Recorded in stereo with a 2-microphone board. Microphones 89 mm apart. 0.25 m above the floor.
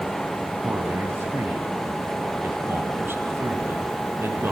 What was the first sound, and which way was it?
A man speaking, 25° right (ahead or behind).